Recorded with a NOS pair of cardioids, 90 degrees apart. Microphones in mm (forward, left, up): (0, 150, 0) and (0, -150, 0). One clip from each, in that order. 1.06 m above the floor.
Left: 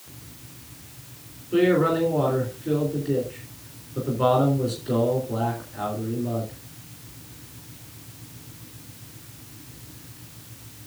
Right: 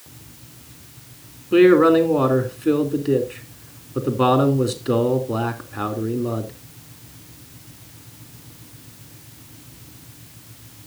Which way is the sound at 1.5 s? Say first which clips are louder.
Right 7 dB; 65° right.